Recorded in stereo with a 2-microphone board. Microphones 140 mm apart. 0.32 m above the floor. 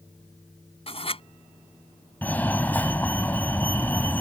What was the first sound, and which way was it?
Writing, 45° left (ahead or behind).